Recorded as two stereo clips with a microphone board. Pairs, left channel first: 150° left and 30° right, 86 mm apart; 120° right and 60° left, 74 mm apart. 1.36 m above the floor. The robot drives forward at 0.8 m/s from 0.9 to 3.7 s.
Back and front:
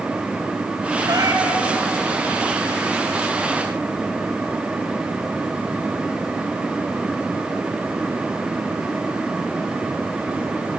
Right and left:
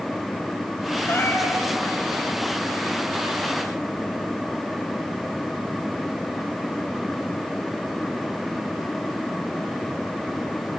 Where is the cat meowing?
65° right, 3 m; by 1.6 s 75° right, 2.5 m.